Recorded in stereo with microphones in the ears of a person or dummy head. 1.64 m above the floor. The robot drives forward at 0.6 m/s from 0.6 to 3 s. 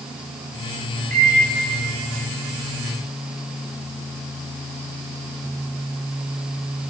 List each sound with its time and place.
1.1 s a microwave: 45° right (ahead or behind), 4 m; by 1.4 s 40° right (ahead or behind), 4 m